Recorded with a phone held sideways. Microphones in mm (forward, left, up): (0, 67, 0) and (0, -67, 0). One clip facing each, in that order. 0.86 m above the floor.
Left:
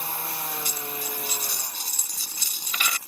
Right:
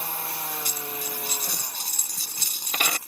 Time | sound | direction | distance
0.7 | a dropped coin | 50° right (ahead or behind) | ?